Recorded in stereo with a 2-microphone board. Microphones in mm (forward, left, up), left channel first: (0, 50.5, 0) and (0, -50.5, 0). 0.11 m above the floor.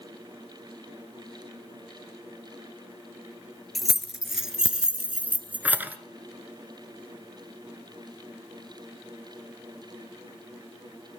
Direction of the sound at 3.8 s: Centre (ahead or behind).